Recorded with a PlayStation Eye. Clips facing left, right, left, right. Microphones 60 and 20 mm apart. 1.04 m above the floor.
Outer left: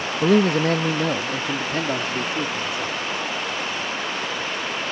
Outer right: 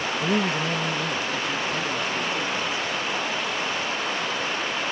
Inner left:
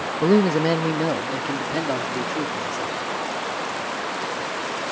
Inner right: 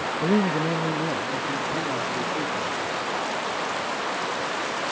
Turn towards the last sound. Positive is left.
turn(degrees=60)  # may be behind; listen again after turning